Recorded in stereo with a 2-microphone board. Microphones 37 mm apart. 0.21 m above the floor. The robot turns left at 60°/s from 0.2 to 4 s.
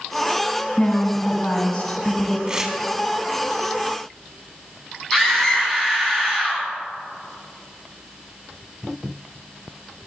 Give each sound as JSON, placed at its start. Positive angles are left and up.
{"t": 0.8, "sound": "a woman speaking", "side_deg": 20, "distance_m": 1.1}
{"t": 2.5, "sound": "tearing paper", "side_deg": -20, "distance_m": 0.5}
{"t": 5.1, "sound": "a scream", "side_deg": 15, "distance_m": 2.0}